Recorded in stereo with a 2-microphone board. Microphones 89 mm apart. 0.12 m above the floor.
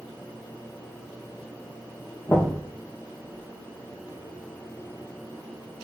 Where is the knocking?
25° left (ahead or behind), 3 m.